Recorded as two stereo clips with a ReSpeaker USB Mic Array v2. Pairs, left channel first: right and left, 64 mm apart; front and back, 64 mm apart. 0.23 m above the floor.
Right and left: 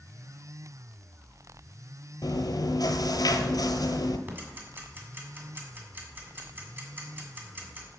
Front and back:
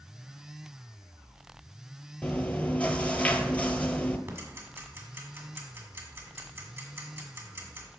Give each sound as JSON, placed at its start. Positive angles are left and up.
{"t": 2.2, "sound": "chewing", "azimuth_deg": -70, "distance_m": 0.9}
{"t": 4.3, "sound": "ticking", "azimuth_deg": 135, "distance_m": 1.8}